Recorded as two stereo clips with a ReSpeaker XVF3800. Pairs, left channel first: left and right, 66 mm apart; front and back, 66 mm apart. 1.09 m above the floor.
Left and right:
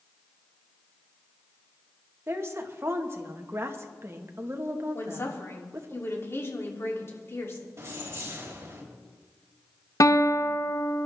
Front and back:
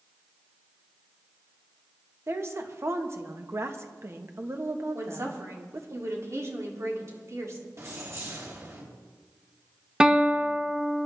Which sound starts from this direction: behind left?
A woman speaking, at 4.9 s.